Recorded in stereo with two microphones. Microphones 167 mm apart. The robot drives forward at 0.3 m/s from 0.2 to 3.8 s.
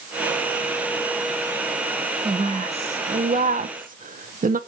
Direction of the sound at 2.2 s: 35° right (ahead or behind).